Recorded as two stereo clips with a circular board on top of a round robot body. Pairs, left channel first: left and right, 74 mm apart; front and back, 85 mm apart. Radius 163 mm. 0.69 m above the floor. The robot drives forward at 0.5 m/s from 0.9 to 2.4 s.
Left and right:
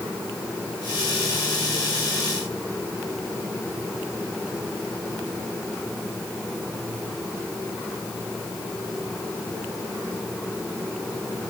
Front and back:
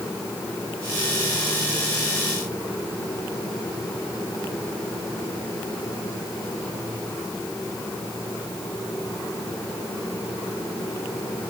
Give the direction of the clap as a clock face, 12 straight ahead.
No clap in this recording.